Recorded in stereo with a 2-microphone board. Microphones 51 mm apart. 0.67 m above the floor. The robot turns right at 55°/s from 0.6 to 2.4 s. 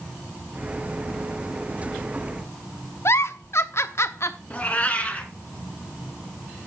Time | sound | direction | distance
3.0 | a giggle | 55° left (ahead or behind) | 0.8 m
4.5 | a cat meowing | 25° left (ahead or behind) | 2 m